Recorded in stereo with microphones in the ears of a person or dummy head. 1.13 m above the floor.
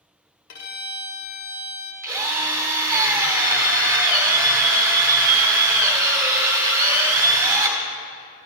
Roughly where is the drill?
Centre.